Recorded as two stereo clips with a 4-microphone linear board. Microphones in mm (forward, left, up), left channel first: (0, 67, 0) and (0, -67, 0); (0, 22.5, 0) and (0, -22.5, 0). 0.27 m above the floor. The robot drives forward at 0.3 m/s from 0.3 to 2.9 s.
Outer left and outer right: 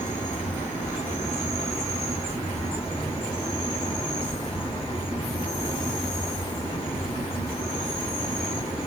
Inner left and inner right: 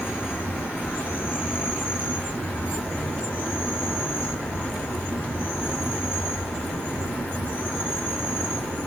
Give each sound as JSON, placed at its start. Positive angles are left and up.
{"t": 0.0, "sound": "an insect", "side_deg": 70, "distance_m": 1.0}